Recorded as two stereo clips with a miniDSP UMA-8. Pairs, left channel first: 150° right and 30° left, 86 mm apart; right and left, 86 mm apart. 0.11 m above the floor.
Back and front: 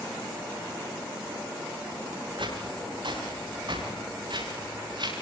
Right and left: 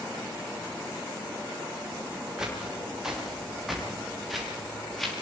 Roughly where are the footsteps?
Ahead.